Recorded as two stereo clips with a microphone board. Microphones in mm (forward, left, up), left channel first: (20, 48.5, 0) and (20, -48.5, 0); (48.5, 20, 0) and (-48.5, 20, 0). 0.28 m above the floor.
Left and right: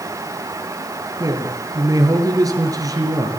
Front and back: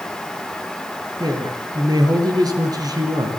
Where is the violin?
No violin in this recording.